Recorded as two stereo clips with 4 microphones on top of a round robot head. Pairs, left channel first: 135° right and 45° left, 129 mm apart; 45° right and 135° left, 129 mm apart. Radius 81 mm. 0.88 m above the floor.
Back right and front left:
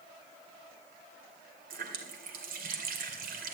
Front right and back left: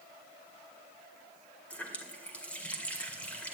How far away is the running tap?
About 2.5 m.